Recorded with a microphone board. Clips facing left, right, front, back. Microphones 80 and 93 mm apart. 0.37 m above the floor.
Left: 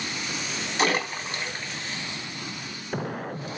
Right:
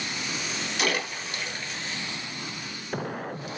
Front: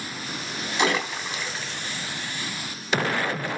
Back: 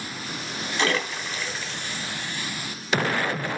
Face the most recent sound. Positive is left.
turn(degrees=65)